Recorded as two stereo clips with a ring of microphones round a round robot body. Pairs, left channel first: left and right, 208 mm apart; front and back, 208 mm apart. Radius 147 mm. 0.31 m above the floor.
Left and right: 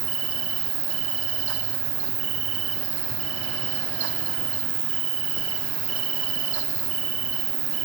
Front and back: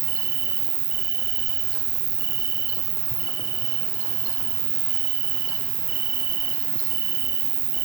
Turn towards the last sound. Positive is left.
turn(degrees=-145)